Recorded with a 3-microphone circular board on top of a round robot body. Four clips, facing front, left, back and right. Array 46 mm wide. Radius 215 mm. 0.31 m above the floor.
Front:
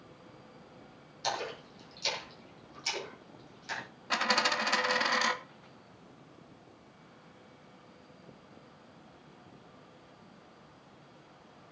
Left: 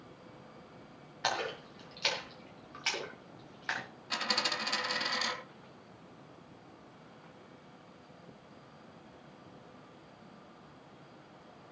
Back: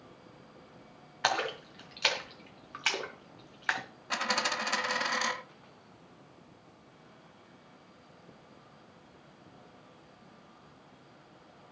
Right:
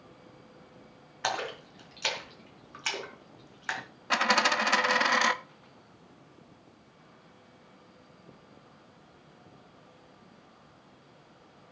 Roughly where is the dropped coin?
Right.